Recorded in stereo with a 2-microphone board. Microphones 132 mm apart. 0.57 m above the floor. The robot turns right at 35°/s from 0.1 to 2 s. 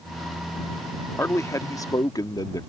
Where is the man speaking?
15° left (ahead or behind); by 2.6 s 30° left (ahead or behind).